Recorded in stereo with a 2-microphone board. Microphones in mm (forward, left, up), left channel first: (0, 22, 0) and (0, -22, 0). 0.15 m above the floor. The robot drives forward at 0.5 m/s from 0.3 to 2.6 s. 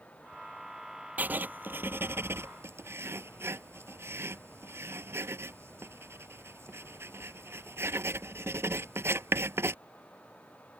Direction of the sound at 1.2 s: 40° right (ahead or behind).